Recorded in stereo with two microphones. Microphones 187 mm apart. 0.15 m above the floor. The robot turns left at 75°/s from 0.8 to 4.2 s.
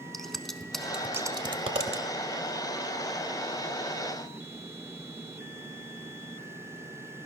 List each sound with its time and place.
0.1 s scissors: centre (ahead or behind), 0.6 m; by 2.0 s 35° right (ahead or behind), 0.6 m